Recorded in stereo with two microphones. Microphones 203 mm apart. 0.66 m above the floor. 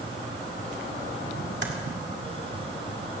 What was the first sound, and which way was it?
Typing on a keyboard, 65° right (ahead or behind).